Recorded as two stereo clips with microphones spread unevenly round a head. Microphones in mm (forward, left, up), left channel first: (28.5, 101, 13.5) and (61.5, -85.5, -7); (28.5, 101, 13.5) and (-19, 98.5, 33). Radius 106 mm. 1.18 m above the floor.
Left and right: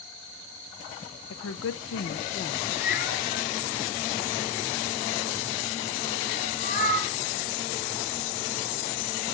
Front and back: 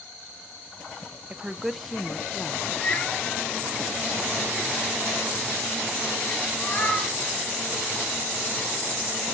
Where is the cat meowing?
65° left, 7.5 m.